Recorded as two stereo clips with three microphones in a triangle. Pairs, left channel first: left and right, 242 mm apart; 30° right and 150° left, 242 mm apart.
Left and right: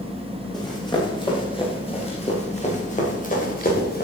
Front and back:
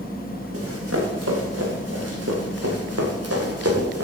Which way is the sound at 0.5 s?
165° left.